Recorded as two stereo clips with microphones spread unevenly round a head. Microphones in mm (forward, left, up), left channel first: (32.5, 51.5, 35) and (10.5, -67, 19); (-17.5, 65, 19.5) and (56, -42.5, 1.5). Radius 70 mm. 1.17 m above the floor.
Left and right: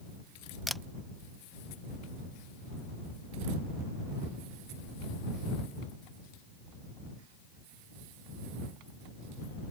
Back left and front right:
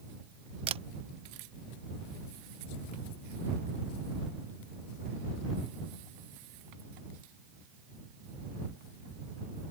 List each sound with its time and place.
0.7 s a camera shutter: 10° right